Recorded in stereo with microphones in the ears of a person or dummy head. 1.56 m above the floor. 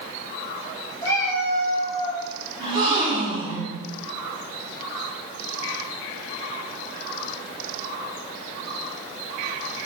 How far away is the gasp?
About 2 m.